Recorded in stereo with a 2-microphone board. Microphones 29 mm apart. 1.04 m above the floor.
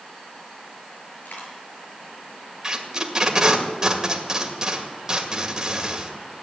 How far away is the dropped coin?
About 6.5 m.